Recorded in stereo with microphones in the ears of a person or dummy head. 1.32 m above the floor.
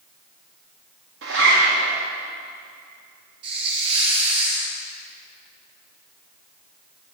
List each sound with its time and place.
1.2 s a zipper: 80° right, 1.7 m
3.4 s a hiss: 30° right (ahead or behind), 1.6 m